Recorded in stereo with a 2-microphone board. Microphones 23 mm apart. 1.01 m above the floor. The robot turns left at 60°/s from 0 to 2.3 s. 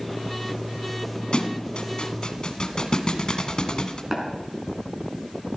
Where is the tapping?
15° right (ahead or behind), 4 m.